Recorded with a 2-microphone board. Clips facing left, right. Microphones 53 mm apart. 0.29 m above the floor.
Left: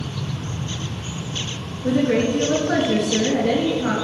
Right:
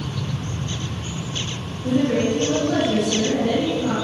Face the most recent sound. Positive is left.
turn(degrees=70)  # may be behind; listen again after turning